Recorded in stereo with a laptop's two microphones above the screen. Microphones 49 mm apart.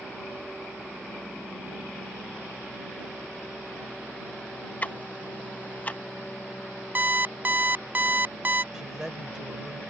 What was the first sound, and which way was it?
Ticking, 35° left (ahead or behind).